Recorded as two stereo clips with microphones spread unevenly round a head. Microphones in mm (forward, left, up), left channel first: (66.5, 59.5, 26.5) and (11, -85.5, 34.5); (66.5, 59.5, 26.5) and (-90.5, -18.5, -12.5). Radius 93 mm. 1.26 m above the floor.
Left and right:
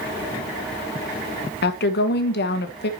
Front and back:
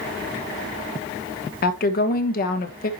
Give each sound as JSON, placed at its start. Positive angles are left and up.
{"t": 1.6, "sound": "a woman speaking", "azimuth_deg": 70, "distance_m": 1.4}